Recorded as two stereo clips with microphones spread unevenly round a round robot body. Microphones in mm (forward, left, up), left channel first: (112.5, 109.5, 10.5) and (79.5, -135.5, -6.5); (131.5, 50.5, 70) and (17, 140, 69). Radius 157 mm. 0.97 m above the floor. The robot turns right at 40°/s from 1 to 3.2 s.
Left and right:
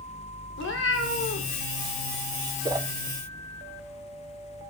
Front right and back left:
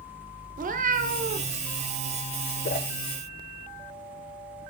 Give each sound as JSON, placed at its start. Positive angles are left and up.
{"t": 0.6, "sound": "a cat meowing", "azimuth_deg": 125, "distance_m": 0.9}
{"t": 2.6, "sound": "a whoosh", "azimuth_deg": -25, "distance_m": 0.9}